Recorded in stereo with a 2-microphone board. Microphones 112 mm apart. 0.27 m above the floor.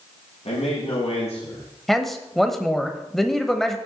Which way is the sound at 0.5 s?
75° left (ahead or behind).